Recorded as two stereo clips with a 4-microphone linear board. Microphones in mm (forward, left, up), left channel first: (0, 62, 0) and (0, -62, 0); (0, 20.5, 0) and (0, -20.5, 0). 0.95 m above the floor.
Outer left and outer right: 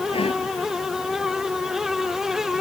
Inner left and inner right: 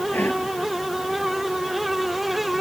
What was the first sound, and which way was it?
Whispering, 55° left (ahead or behind).